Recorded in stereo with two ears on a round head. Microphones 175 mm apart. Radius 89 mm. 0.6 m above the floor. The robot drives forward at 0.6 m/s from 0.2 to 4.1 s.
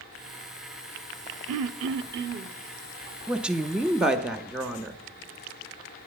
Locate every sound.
1.5 s throat clearing: 80° right, 0.5 m; by 2.5 s 45° right (ahead or behind), 0.7 m
3.3 s a woman speaking: 5° right (ahead or behind), 0.6 m